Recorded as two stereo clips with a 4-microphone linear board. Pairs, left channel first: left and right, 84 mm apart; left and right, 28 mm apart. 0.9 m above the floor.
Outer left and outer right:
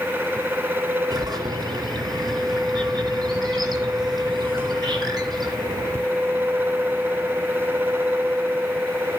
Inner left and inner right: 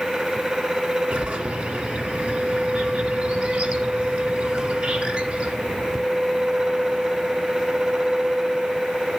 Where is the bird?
65° right (ahead or behind), 2 m.